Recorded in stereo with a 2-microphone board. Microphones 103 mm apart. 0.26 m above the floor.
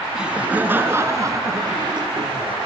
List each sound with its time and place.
0.1 s laughter: 10° right (ahead or behind), 3.5 m; by 2.6 s 55° right (ahead or behind), 3.5 m